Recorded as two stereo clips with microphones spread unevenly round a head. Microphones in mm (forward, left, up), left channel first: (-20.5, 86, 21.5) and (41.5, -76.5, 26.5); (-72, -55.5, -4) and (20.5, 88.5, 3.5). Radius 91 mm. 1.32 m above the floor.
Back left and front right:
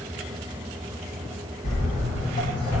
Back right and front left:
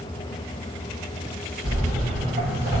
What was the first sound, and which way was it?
Footsteps, 145° left.